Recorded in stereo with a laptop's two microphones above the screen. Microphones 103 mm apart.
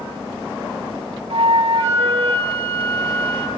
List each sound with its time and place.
1.3 s a flute: 65° right (ahead or behind), 1.6 m